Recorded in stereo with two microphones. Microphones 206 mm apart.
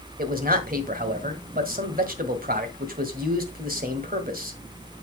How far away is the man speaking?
About 1.7 m.